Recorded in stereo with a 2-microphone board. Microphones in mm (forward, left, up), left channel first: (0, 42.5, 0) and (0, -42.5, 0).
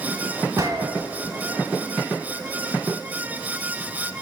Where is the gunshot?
45° right (ahead or behind), 0.7 m.